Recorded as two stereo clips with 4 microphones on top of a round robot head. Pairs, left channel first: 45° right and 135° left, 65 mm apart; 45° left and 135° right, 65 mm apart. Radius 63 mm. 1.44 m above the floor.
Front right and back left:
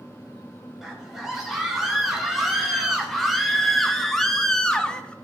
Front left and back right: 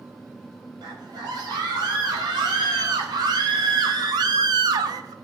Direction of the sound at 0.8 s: 145° right.